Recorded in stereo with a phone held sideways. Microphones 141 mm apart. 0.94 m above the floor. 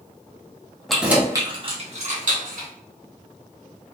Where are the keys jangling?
Centre (ahead or behind), 0.8 m; by 2.7 s 75° right (ahead or behind), 1.2 m.